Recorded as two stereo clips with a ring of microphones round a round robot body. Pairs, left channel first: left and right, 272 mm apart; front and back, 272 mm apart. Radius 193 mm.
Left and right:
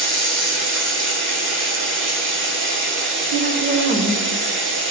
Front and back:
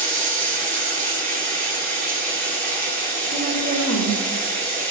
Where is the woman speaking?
130° right, 1.1 m.